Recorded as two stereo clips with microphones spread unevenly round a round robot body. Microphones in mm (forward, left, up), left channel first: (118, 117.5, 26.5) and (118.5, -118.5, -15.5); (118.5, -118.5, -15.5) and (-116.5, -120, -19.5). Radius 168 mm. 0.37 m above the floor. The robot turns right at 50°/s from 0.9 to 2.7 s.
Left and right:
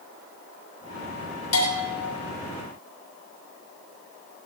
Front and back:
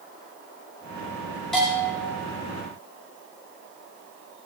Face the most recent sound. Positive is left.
turn(degrees=145)